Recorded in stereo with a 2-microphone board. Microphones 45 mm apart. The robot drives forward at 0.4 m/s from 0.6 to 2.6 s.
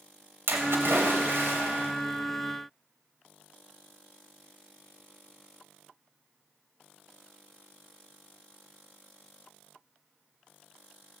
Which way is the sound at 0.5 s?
70° right (ahead or behind).